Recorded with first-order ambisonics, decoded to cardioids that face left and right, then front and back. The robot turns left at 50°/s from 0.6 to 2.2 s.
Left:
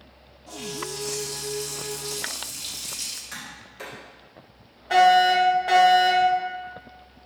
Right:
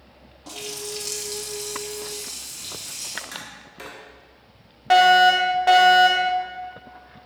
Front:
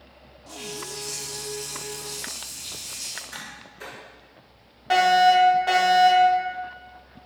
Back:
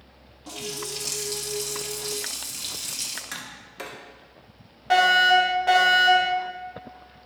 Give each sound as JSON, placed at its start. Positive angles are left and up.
{"t": 0.5, "sound": "a running tap", "azimuth_deg": -115, "distance_m": 1.6}
{"t": 3.3, "sound": "tapping", "azimuth_deg": -165, "distance_m": 1.9}
{"t": 4.9, "sound": "a fire alarm", "azimuth_deg": -90, "distance_m": 1.7}